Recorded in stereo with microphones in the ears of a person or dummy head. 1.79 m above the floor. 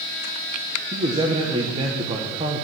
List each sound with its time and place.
0.9 s a man speaking: 30° right (ahead or behind), 1.6 m